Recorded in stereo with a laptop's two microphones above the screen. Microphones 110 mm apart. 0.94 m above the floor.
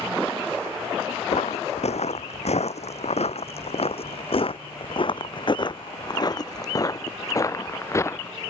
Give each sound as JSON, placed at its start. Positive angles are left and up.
{"t": 1.3, "sound": "footsteps", "side_deg": 70}